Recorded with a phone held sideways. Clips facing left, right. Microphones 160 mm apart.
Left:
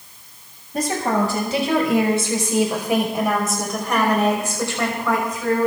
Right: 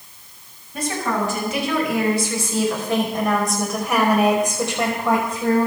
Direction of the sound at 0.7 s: 45° left (ahead or behind).